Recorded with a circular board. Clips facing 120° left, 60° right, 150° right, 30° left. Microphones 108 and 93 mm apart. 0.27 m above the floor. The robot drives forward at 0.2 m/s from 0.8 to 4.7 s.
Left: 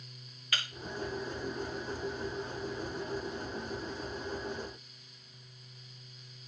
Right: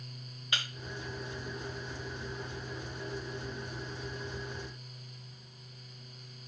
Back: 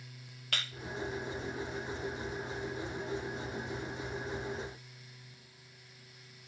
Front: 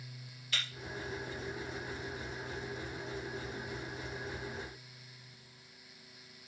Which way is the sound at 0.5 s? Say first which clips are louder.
Even, back 1 dB; 125° right.